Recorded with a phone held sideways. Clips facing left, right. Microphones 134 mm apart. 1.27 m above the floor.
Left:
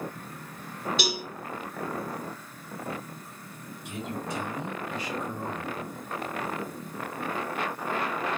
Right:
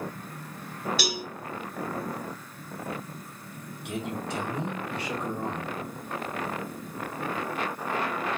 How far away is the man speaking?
About 1.5 m.